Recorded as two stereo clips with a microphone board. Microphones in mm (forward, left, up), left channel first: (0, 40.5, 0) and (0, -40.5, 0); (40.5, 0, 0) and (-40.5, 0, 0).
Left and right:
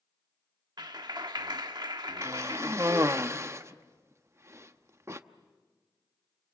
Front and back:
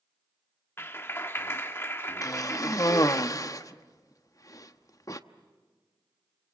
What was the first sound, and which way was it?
A clap, 60° right.